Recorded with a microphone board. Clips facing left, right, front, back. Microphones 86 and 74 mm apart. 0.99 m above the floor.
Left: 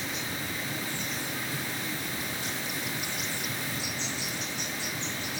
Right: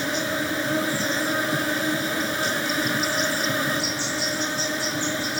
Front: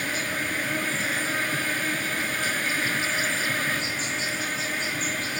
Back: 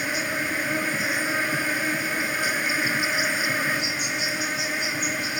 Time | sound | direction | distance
0.0 | an insect | 105° right | ?